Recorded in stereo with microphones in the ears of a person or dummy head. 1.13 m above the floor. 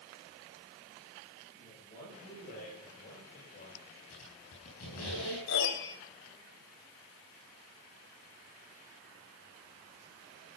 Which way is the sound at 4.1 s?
75° left (ahead or behind).